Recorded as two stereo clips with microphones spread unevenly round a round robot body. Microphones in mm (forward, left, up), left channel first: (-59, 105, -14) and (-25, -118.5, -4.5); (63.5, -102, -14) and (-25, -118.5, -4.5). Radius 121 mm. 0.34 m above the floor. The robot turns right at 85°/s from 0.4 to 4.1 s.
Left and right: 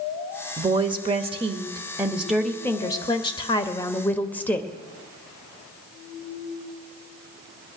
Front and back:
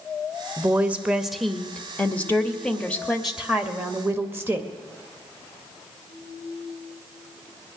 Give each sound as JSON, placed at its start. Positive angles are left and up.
{"t": 0.6, "sound": "a woman speaking", "azimuth_deg": -140, "distance_m": 0.8}